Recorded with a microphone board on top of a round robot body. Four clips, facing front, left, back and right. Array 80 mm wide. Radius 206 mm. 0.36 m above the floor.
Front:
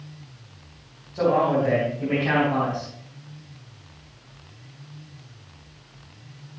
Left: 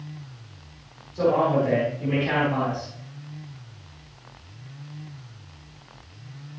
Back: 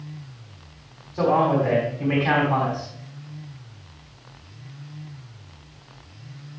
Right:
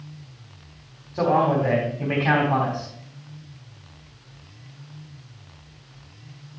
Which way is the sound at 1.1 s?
100° right.